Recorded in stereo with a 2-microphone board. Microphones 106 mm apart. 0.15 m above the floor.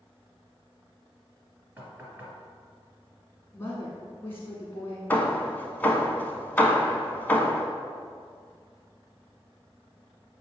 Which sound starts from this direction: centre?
Hammering, at 5.1 s.